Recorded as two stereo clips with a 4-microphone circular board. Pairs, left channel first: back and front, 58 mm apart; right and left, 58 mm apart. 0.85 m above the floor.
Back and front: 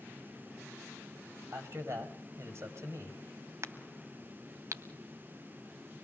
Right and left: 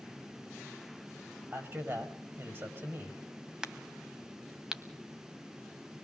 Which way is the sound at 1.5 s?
40° left.